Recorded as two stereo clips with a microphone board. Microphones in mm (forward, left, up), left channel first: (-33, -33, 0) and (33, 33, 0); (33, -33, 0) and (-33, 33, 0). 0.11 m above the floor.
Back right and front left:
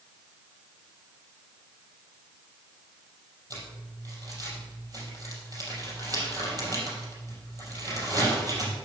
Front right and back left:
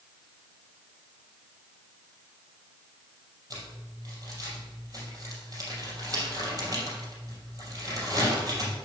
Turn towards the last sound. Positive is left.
turn(degrees=90)